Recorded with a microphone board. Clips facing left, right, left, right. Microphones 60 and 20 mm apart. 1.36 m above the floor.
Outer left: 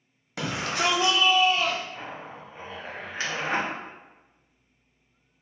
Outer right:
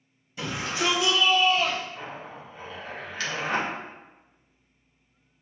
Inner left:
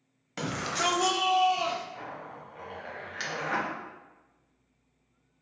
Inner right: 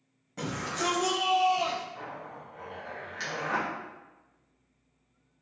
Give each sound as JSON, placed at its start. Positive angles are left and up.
{"t": 0.4, "sound": "a shout", "side_deg": 75, "distance_m": 0.8}
{"t": 1.9, "sound": "a zipper", "side_deg": 30, "distance_m": 0.9}